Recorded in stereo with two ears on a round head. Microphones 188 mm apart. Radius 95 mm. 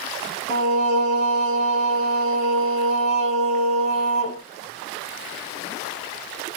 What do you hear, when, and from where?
0.5 s singing: 30° left (ahead or behind), 1.6 m